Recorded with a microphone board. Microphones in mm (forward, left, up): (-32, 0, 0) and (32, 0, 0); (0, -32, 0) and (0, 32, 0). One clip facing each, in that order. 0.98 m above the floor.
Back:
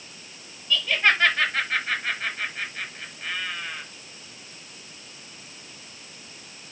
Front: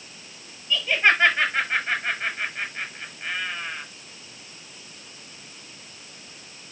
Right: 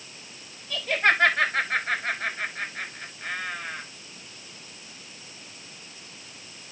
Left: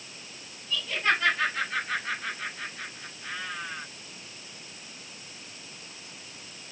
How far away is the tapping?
No tapping in this recording.